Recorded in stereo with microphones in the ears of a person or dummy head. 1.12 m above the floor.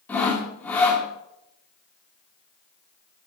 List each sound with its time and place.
0.1 s sawing: 10° left (ahead or behind), 2.5 m